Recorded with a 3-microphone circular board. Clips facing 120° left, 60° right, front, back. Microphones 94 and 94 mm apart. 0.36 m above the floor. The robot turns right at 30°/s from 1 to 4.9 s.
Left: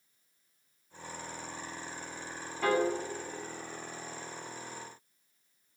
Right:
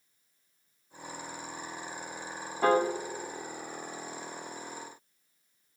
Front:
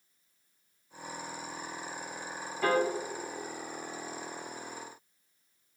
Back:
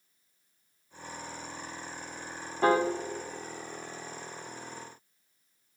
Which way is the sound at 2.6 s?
120° right.